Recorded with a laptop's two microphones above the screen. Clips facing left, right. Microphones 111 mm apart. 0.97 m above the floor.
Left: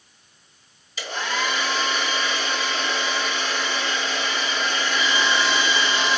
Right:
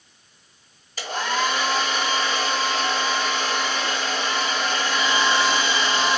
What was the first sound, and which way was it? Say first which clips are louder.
A hair dryer: right 3 dB; 45° right (ahead or behind).